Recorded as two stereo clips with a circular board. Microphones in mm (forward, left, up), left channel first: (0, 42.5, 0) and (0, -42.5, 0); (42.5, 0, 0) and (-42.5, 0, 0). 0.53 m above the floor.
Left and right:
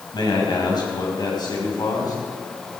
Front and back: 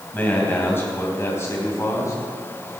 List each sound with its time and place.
0.1 s a man speaking: 65° left, 3.5 m; by 2.2 s 50° left, 4 m